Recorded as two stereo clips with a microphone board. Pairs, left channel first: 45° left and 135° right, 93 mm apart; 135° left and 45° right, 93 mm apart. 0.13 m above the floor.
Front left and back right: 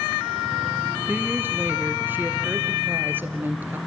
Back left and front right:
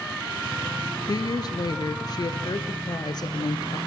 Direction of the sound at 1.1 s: 160° left.